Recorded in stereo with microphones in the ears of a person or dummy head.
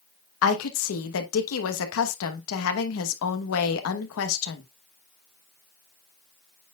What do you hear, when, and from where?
0.4 s a woman speaking: 80° left, 1.2 m